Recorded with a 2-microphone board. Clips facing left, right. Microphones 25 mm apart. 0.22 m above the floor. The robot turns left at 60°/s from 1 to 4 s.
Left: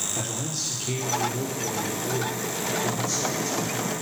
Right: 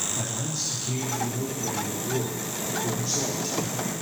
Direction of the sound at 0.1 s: 60° left.